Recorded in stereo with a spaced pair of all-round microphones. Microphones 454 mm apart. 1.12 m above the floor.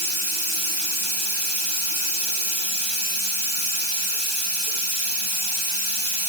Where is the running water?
65° right (ahead or behind), 2.5 m.